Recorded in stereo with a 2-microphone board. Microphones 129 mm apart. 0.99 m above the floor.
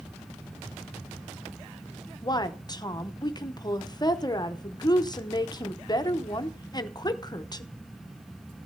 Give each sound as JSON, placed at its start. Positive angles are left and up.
{"t": 2.2, "sound": "a woman speaking", "side_deg": 30, "distance_m": 0.7}